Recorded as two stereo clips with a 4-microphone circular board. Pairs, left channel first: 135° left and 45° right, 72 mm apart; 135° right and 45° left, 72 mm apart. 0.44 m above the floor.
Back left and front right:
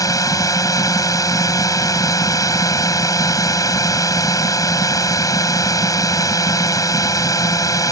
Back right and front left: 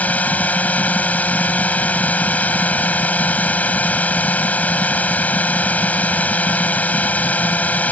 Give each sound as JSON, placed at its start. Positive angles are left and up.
{"t": 0.0, "sound": "a drone", "azimuth_deg": 160}